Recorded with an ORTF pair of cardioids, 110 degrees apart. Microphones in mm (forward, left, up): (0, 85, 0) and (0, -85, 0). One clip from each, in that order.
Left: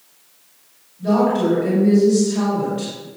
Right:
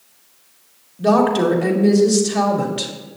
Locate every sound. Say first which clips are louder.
1.0 s a woman speaking: right 3 dB; 70° right, 2 m